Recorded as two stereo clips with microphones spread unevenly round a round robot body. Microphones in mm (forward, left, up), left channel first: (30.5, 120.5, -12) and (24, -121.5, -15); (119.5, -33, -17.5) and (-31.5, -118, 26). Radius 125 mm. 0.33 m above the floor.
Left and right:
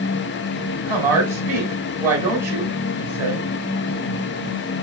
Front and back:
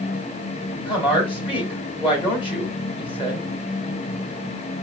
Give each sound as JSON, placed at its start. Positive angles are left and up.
{"t": 0.8, "sound": "a woman speaking", "azimuth_deg": -15, "distance_m": 2.5}